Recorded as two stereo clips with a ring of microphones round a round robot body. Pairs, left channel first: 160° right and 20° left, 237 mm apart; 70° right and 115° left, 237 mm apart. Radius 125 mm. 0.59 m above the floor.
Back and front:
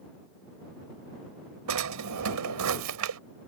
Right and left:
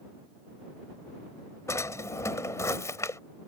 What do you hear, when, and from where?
1.7 s a drawer: 10° left